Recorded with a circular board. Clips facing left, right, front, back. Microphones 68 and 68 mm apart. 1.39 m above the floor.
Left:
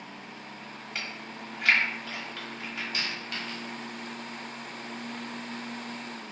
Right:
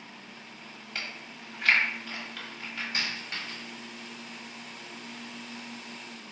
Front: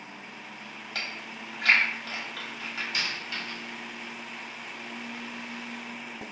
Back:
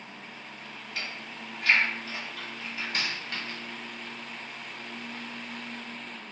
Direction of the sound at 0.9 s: 5° left.